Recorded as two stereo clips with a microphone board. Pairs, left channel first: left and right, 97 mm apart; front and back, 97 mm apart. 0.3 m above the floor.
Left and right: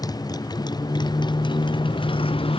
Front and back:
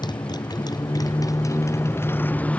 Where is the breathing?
I don't hear breathing.